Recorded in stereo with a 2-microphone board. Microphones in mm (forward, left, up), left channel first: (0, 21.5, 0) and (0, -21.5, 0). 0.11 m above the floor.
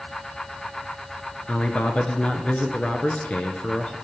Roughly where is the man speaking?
Left.